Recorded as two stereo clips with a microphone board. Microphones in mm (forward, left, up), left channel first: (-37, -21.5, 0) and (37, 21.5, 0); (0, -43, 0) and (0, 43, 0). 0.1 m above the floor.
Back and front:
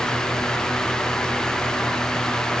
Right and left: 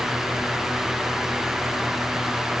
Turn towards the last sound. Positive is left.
No sound to turn to.